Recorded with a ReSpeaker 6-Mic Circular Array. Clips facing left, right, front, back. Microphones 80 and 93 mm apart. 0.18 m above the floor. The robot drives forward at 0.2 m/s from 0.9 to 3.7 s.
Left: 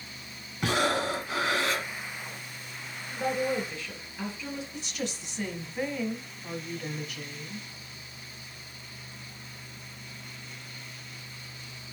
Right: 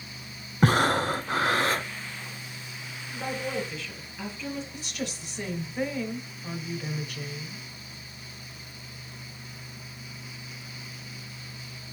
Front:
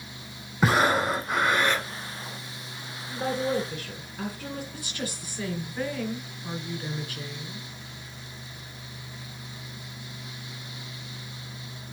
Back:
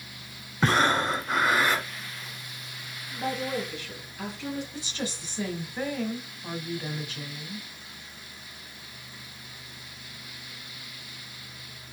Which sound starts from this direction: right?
Breathing, at 0.6 s.